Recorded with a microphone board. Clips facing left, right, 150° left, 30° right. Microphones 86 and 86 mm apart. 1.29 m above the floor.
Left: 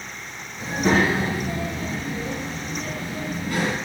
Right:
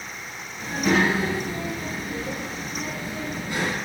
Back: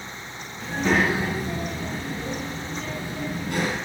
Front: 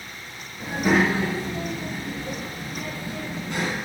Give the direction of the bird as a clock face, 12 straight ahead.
No bird in this recording.